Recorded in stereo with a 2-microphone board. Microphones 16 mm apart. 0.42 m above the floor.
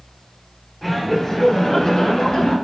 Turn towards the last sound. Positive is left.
turn(degrees=60)  # may be behind; listen again after turning